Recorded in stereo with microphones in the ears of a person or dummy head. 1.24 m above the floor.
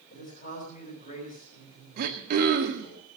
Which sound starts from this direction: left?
A man speaking, at 0.1 s.